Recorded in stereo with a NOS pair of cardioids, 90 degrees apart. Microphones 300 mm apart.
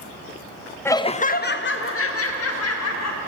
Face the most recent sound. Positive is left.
turn(degrees=60)